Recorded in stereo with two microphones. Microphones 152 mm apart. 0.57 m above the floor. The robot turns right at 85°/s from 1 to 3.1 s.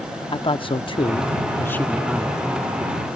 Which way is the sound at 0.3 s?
95° left.